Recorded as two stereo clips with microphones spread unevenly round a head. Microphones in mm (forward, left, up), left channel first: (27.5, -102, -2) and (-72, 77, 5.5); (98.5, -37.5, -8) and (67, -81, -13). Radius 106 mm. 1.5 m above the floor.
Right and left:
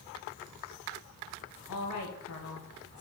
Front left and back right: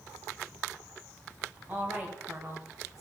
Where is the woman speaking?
60° right, 1.2 m; by 3.0 s 100° right, 1.3 m.